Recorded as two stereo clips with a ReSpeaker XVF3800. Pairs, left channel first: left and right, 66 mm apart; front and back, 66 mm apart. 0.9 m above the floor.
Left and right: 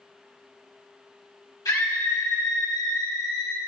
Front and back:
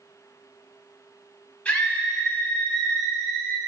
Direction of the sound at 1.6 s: 70° left.